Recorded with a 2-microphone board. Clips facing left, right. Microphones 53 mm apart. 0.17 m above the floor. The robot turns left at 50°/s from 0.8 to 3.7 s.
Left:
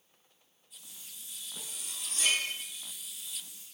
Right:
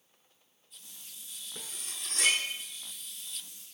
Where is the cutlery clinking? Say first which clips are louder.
Right 2 dB; 45° right (ahead or behind), 1.2 m; by 2.4 s 60° right (ahead or behind), 1.2 m.